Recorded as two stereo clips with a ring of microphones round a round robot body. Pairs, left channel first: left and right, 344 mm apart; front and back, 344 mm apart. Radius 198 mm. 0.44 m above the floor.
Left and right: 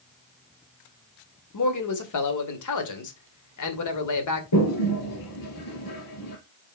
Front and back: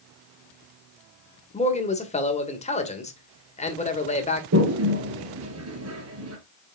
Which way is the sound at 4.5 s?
130° left.